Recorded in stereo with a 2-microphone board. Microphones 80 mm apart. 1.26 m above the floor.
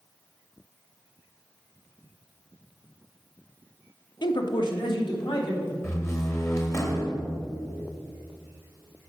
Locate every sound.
4.2 s a man speaking: 60° left (ahead or behind), 0.8 m
5.8 s a door slam: 35° left (ahead or behind), 1.3 m